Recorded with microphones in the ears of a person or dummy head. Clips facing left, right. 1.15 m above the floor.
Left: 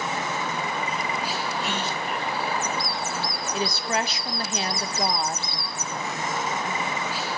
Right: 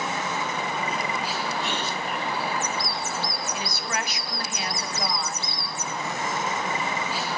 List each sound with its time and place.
1.6 s a gasp: 5° left (ahead or behind), 6.5 m
3.5 s a woman speaking: 30° left (ahead or behind), 0.6 m